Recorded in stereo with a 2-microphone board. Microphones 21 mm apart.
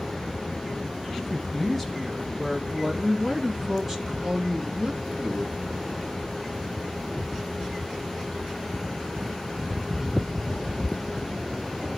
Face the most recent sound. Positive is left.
turn(degrees=-20)  # may be behind; listen again after turning